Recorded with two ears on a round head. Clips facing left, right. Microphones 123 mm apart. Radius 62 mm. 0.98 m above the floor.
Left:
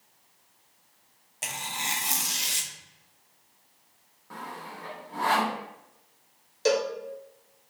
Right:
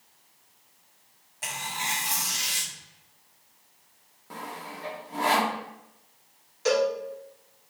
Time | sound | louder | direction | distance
1.4 | tearing paper | right 2 dB | 30° left (ahead or behind) | 0.6 m
4.3 | sawing | right 1 dB | 25° right (ahead or behind) | 0.6 m
6.7 | a cowbell | right 2 dB | 40° left (ahead or behind) | 1.1 m